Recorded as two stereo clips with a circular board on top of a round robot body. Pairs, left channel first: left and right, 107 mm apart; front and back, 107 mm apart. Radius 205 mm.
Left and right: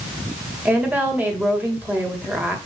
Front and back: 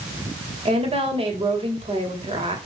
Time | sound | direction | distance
0.7 | a woman speaking | 160° right | 2.5 m